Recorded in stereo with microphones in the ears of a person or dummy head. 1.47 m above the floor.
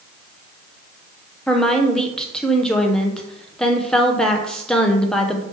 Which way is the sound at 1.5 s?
5° left (ahead or behind).